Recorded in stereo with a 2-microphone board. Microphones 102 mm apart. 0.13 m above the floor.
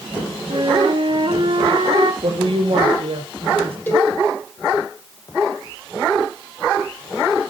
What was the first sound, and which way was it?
A flute, 55° right (ahead or behind).